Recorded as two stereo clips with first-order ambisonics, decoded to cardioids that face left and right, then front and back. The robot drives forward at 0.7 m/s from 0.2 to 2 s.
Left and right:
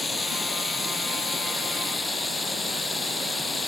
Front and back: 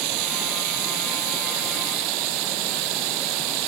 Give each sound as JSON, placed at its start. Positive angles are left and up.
{"t": 0.0, "sound": "running water", "azimuth_deg": 170}